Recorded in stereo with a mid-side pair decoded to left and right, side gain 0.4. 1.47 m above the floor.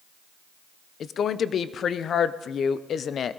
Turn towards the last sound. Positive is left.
turn(degrees=60)